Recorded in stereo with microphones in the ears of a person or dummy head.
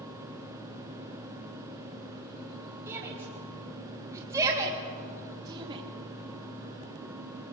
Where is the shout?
10° right (ahead or behind), 4 m; by 5.8 s 25° right (ahead or behind), 2.5 m.